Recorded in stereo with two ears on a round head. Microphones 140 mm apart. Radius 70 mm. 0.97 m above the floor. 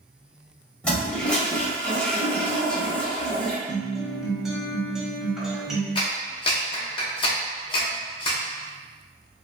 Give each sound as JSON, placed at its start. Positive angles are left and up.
{"t": 0.8, "sound": "a toilet flushing", "side_deg": 5, "distance_m": 0.9}
{"t": 3.7, "sound": "a guitar", "side_deg": -5, "distance_m": 0.8}
{"t": 6.0, "sound": "a clap", "side_deg": 30, "distance_m": 0.8}